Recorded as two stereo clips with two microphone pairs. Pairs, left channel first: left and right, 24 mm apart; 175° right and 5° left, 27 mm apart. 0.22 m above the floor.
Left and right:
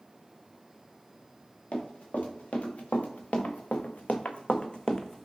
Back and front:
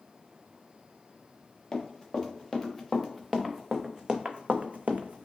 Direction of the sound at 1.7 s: 110° left.